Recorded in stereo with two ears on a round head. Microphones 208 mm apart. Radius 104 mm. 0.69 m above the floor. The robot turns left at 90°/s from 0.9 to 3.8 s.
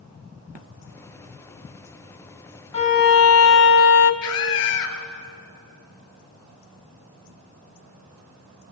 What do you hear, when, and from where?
2.7 s a violin: 155° left, 1.0 m; by 4.1 s 60° left, 1.0 m
4.2 s a scream: 75° left (ahead or behind), 3 m